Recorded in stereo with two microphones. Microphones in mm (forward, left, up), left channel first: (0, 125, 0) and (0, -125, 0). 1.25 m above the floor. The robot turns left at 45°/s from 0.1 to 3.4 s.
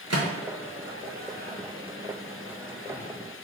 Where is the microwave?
75° right (ahead or behind), 0.7 m; by 3.1 s 35° left (ahead or behind), 0.7 m.